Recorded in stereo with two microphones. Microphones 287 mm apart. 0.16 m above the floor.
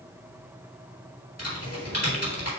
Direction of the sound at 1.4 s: 60° left (ahead or behind).